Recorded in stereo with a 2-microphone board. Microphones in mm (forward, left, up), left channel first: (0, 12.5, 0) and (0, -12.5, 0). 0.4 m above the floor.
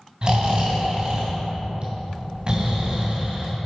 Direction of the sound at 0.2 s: 35° right (ahead or behind).